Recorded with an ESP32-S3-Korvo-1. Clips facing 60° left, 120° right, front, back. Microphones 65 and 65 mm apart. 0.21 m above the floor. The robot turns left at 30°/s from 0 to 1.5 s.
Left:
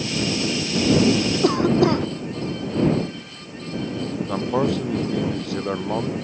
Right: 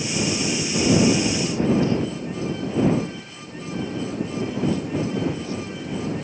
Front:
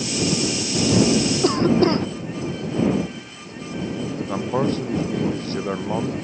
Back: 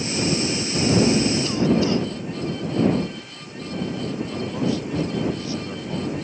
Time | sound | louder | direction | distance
1.4 | a cough | left 6 dB, front 3 dB | 45° left | ?
4.3 | a man speaking | left 5 dB, front 4 dB | 40° left | ?